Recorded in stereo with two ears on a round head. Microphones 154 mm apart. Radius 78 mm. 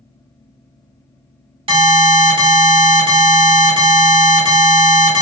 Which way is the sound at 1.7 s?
35° right (ahead or behind).